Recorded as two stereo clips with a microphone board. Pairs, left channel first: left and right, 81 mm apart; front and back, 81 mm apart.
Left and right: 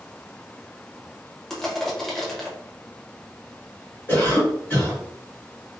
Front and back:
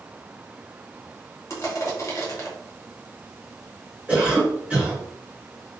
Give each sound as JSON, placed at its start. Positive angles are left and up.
{"t": 1.5, "sound": "crushing", "azimuth_deg": 10, "distance_m": 0.8}
{"t": 4.1, "sound": "a cough", "azimuth_deg": 120, "distance_m": 1.5}